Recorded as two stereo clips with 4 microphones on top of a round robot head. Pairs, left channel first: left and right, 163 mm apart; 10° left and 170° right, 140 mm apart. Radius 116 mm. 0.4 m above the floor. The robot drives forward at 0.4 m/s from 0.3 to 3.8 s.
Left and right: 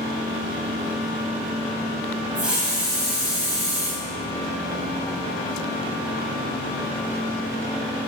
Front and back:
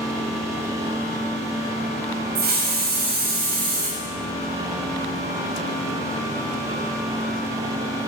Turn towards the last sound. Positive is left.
turn(degrees=-175)